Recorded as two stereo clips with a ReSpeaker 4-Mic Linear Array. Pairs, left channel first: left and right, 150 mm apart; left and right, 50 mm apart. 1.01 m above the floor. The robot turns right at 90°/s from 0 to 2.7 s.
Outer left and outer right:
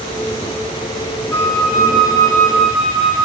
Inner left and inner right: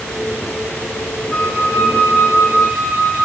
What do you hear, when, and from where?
1.3 s a flute: 15° left, 1.5 m; by 3.3 s 140° left, 1.5 m